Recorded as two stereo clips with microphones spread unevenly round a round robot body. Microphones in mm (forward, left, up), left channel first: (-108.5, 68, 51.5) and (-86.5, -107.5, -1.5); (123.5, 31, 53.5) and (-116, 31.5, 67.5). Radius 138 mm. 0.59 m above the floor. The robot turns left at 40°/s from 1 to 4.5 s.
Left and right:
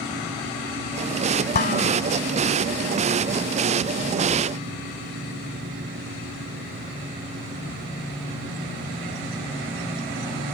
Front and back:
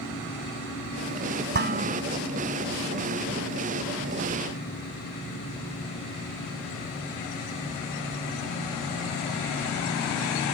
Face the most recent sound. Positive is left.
turn(degrees=15)